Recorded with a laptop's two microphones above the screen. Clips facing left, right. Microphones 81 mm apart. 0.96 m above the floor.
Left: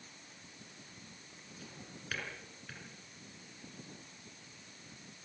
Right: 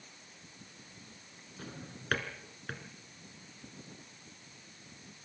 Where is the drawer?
55° right (ahead or behind), 3.5 m.